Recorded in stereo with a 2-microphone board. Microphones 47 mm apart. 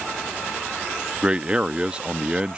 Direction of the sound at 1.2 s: 20° right (ahead or behind).